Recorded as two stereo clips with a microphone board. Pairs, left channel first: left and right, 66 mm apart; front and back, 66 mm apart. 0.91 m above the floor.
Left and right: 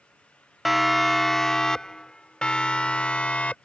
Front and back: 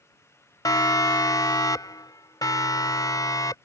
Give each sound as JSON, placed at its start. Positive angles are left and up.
{"t": 0.7, "sound": "a siren", "azimuth_deg": 0}